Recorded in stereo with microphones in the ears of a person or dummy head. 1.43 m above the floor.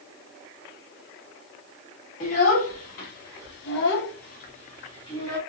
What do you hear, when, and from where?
2.2 s a child speaking: 45° left (ahead or behind), 1.8 m; by 5.4 s 20° left (ahead or behind), 1.3 m